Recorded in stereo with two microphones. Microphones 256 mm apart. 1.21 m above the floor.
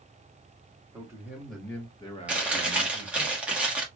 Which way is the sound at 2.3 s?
5° right (ahead or behind).